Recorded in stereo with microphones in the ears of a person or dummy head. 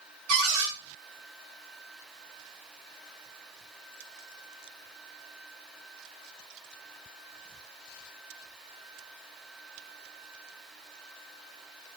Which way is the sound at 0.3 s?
50° right (ahead or behind).